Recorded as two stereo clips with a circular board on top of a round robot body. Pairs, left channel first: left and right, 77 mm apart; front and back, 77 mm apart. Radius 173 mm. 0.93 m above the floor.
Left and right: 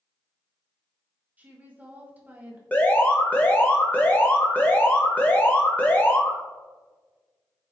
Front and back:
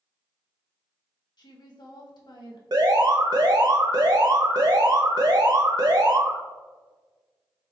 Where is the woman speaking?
20° right, 1.8 m.